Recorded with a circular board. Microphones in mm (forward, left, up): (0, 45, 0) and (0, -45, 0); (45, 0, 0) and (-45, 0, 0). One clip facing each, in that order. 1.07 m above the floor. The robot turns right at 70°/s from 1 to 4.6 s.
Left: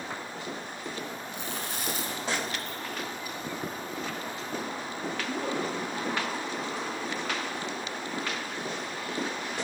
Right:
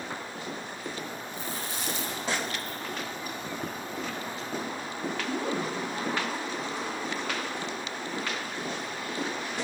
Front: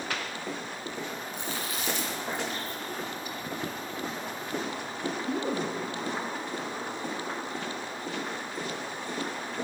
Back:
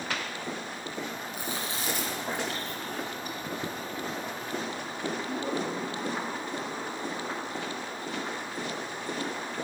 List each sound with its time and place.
1.3 s chewing: 90° left, 3 m; by 5.7 s 40° right, 3 m